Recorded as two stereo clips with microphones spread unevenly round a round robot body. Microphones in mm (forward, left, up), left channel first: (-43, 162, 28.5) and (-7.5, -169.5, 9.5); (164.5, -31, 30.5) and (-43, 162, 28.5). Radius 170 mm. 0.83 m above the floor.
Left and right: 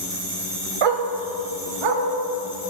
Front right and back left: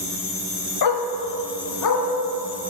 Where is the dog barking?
75° right, 1.1 m; by 2.0 s 85° right, 2.5 m.